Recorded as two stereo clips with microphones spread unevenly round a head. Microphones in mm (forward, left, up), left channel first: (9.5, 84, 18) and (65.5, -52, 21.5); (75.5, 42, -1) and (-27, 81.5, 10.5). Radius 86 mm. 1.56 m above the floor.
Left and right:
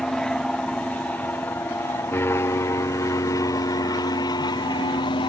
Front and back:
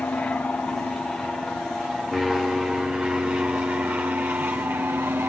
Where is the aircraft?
35° left; by 5.3 s 100° left.